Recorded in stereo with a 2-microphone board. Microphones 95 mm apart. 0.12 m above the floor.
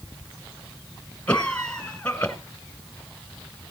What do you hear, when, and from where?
1.3 s a cough: 15° left (ahead or behind), 1.2 m